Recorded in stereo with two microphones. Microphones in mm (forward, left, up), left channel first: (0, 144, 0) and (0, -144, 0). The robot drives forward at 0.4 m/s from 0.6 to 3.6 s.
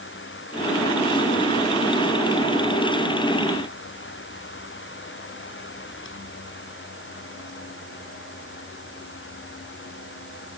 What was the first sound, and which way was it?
Only background noise.